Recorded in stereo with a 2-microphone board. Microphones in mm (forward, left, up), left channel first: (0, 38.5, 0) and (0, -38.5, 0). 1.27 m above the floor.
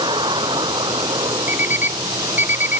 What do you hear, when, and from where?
0.0 s a vehicle: 85° right
1.5 s an alarm clock: 25° right (ahead or behind)